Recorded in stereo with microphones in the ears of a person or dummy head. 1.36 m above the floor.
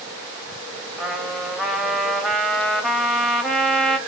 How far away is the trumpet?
About 0.9 m.